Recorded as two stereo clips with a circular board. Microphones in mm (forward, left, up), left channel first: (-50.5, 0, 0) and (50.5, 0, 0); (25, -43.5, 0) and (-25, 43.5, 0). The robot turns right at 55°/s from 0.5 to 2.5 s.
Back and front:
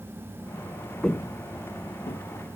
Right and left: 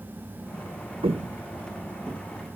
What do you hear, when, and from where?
1.0 s footsteps: 95° left, 0.6 m; by 2.2 s 160° right, 1.2 m